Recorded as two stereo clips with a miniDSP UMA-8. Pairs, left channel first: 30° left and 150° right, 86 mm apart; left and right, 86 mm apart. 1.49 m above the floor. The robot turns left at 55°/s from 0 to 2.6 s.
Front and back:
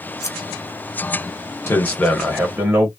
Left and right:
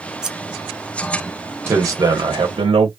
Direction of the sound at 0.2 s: 10° right.